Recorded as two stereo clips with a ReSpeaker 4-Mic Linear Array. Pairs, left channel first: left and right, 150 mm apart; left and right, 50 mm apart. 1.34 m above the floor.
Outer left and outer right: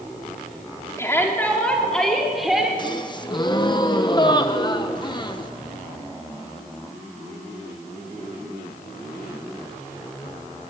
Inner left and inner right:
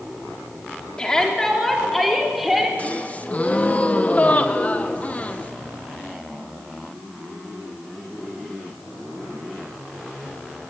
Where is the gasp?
30° left (ahead or behind), 1.2 m.